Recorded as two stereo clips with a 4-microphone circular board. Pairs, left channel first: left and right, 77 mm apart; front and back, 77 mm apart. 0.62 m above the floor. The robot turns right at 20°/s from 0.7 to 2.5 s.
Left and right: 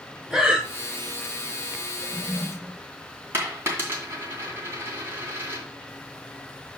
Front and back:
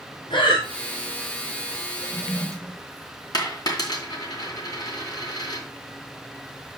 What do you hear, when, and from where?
0.3 s breathing: 5° right, 1.9 m
2.0 s a toilet flushing: 55° right, 2.0 m; by 2.8 s 45° right, 2.0 m
3.3 s a dropped coin: 30° right, 2.5 m